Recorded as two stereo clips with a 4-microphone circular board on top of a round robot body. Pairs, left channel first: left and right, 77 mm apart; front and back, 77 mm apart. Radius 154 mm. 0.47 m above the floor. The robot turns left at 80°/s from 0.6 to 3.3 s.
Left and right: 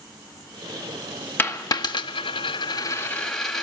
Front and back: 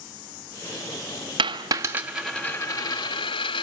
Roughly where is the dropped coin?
Behind left.